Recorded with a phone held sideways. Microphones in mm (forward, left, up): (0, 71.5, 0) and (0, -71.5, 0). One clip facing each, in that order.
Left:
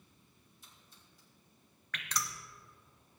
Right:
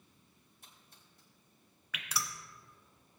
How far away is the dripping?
About 0.9 m.